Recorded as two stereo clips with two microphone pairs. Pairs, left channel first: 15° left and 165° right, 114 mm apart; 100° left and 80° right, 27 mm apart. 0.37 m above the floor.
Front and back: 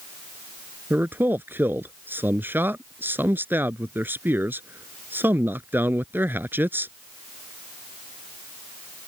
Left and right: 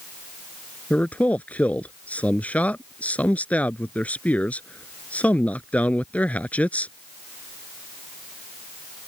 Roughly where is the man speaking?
Behind left.